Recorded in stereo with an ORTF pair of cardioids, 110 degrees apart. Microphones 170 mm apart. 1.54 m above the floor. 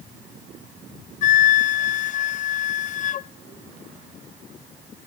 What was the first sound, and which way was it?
A flute, 50° left.